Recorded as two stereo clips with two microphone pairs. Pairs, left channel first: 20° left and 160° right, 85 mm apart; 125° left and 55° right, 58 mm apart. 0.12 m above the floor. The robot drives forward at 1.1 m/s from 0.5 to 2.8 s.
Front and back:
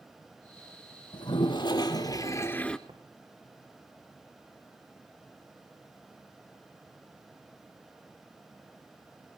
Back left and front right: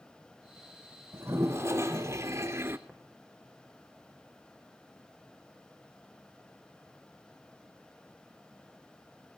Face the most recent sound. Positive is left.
turn(degrees=-135)